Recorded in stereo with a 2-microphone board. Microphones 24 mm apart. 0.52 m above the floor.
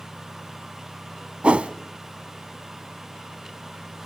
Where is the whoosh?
60° right (ahead or behind), 0.9 m.